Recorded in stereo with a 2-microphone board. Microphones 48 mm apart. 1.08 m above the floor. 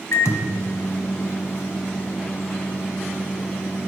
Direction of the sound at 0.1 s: 70° left (ahead or behind).